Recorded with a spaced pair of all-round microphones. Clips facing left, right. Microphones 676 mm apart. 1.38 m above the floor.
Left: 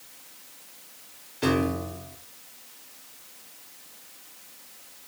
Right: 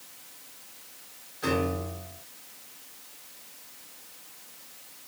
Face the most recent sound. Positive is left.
turn(degrees=85)